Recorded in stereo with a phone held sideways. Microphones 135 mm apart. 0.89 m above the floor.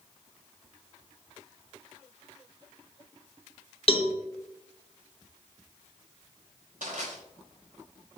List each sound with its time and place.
3.9 s a cowbell: 45° left (ahead or behind), 1.1 m
6.8 s crushing: 80° right, 4.5 m